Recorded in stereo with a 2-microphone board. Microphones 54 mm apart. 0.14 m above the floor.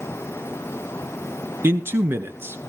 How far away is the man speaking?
About 2 m.